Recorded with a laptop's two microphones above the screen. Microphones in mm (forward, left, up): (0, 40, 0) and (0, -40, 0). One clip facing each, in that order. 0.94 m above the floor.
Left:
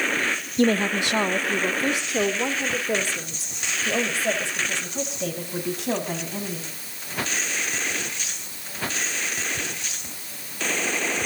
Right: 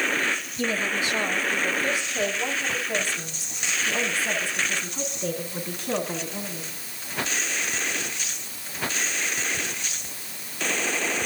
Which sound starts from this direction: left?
A woman speaking, at 0.6 s.